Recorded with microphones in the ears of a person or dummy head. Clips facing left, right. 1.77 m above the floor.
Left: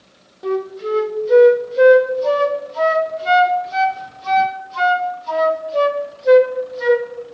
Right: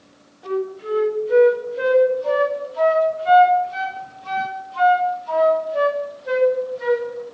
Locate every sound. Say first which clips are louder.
0.4 s a flute: left 3 dB; 55° left (ahead or behind), 2 m